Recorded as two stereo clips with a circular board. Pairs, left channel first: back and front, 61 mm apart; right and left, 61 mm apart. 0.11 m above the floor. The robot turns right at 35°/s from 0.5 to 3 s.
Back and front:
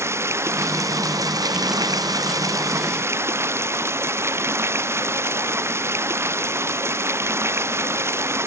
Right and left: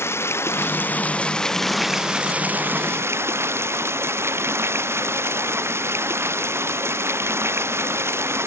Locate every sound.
0.0 s running water: 45° right; by 8.5 s 45° left